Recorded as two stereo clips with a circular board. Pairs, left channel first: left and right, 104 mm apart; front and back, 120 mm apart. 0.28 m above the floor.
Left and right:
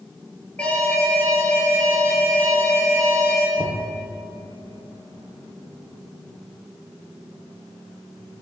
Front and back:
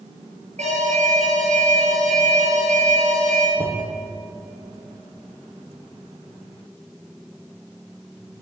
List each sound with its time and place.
0.6 s an alarm: 170° left, 7.5 m
3.6 s knocking: 135° right, 6.5 m